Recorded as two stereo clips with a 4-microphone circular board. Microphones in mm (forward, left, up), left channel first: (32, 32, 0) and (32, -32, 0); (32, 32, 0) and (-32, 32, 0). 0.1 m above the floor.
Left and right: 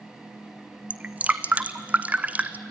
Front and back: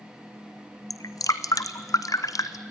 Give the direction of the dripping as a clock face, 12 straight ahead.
1 o'clock.